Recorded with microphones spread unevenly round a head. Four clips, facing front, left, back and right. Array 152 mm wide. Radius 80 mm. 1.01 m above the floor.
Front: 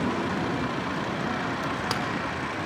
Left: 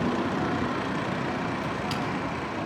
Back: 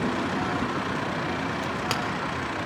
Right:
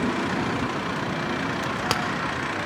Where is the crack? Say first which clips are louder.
Right 3 dB, even; 85° right, 1.6 m.